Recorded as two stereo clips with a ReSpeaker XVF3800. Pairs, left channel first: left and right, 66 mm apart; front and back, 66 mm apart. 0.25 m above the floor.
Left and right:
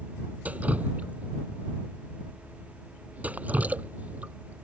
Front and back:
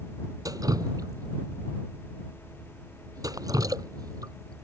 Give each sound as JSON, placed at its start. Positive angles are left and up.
{"t": 0.5, "sound": "dripping", "azimuth_deg": -155}